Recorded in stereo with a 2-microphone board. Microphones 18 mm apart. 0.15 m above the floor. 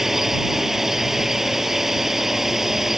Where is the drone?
20° right (ahead or behind).